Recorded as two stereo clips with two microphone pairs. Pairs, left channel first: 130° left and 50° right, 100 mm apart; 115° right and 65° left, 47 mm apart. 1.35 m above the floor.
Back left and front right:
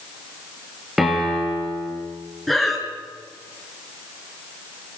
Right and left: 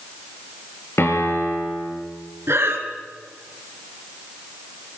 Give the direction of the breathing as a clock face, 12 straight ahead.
11 o'clock.